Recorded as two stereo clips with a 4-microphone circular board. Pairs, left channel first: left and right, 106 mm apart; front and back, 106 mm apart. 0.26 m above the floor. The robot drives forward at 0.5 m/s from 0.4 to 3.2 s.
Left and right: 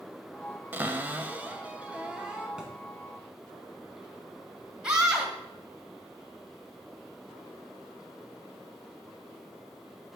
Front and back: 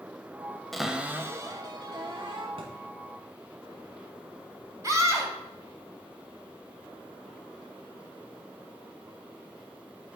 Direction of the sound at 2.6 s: 170° right.